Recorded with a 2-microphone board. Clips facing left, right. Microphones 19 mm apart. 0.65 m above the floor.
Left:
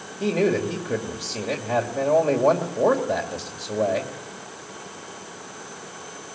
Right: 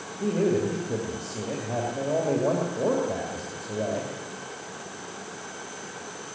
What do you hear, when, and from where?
0.2 s a man speaking: 45° left (ahead or behind), 2 m